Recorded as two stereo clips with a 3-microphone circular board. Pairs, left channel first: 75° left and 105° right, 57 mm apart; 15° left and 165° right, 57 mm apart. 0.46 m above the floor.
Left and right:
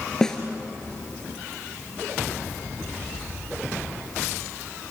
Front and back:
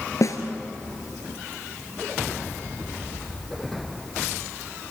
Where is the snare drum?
5° right, 2.5 m.